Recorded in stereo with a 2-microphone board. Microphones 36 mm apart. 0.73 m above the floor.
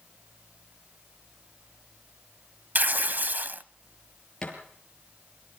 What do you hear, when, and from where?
2.8 s tearing paper: 50° right (ahead or behind), 0.8 m
4.4 s a thud: 20° left (ahead or behind), 7 m